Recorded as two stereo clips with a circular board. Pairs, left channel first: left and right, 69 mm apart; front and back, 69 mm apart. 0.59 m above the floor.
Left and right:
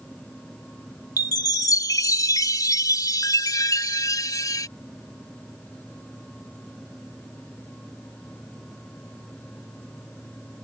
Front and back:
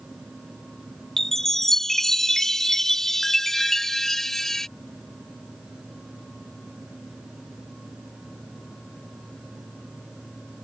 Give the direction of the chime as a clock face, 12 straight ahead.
9 o'clock.